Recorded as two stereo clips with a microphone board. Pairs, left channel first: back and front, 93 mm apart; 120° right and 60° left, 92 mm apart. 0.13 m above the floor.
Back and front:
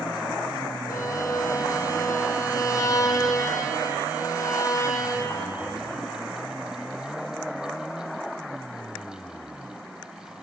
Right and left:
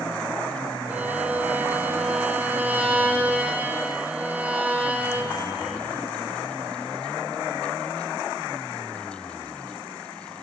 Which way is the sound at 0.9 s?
130° left.